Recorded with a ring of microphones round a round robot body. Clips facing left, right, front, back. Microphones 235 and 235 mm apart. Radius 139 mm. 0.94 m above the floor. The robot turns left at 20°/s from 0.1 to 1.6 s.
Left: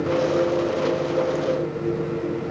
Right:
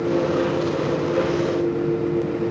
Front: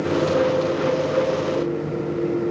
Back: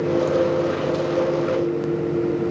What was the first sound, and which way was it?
Only background noise.